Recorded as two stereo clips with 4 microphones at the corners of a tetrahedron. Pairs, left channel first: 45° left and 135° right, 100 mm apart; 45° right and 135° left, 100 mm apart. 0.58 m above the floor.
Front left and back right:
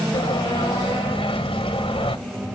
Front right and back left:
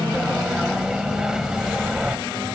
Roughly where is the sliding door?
Ahead left.